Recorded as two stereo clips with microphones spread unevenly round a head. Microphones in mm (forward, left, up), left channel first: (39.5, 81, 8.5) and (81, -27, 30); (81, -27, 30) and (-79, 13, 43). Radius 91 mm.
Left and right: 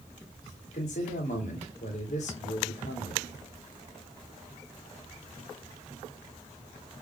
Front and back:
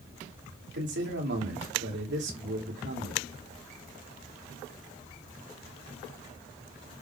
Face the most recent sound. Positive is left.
turn(degrees=145)